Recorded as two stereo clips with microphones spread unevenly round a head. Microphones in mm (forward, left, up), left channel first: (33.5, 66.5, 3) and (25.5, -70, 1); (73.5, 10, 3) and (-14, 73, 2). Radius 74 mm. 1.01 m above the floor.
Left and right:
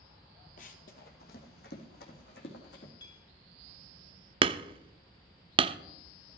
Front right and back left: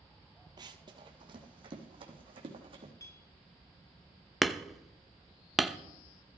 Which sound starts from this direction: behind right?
Hammering, at 4.4 s.